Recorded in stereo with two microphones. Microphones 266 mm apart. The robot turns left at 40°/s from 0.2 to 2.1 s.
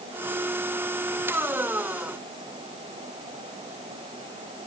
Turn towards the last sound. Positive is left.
No sound to turn to.